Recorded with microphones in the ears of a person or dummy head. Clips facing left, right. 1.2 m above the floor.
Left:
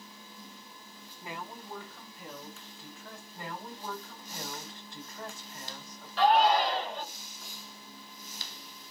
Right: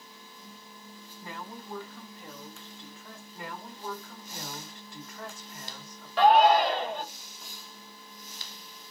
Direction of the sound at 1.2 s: 15° left (ahead or behind).